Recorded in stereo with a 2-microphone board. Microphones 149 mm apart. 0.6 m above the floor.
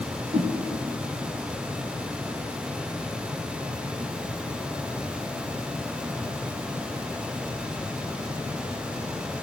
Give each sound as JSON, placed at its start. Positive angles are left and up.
{"t": 0.3, "sound": "a whoosh", "side_deg": -45, "distance_m": 1.1}